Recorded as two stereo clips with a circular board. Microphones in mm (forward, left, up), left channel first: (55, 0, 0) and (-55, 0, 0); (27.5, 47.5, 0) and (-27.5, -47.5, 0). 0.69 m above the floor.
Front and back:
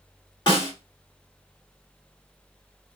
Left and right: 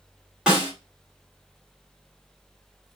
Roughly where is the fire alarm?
No fire alarm in this recording.